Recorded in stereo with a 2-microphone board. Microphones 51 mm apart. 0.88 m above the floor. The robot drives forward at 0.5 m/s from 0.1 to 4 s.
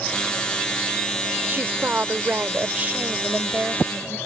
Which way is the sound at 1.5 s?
40° right (ahead or behind).